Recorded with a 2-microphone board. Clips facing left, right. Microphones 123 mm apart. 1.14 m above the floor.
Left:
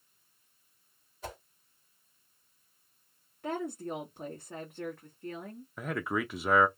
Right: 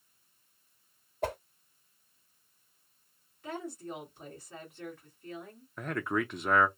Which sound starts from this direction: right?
A whoosh, at 1.2 s.